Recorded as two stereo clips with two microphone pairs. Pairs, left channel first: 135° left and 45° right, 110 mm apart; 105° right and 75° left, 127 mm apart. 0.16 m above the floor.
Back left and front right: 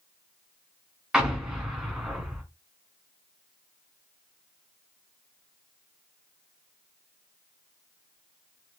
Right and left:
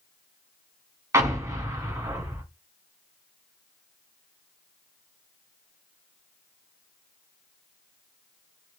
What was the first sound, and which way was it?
An explosion, 35° left.